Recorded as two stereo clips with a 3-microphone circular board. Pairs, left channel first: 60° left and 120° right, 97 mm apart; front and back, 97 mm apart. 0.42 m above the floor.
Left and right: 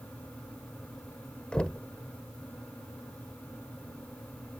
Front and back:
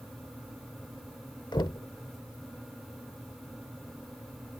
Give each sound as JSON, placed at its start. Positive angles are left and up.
{"t": 1.5, "sound": "knocking", "azimuth_deg": -15}